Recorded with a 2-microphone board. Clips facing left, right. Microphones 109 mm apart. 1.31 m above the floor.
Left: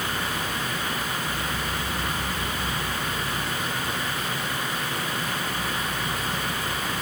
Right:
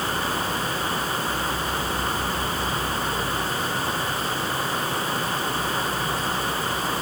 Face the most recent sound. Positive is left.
No sound to turn to.